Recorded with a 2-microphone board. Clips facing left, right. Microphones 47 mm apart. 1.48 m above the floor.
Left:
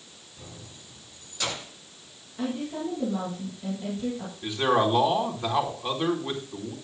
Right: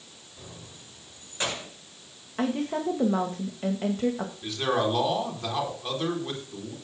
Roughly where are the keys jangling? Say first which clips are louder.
Even; right.